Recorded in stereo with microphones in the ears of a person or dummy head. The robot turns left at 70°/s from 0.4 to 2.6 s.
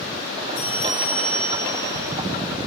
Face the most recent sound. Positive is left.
turn(degrees=-10)